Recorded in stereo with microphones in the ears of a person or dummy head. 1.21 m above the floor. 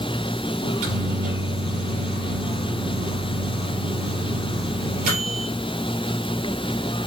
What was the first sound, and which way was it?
A microwave, 55° right (ahead or behind).